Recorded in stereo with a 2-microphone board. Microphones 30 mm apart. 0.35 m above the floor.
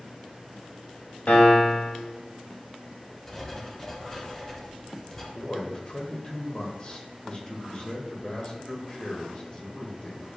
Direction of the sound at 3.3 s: 15° left (ahead or behind).